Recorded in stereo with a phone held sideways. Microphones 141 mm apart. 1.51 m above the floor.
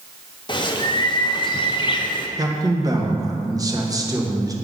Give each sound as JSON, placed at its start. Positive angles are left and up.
{"t": 0.5, "sound": "a bird", "side_deg": 35, "distance_m": 0.6}
{"t": 2.4, "sound": "a man speaking", "side_deg": -25, "distance_m": 1.0}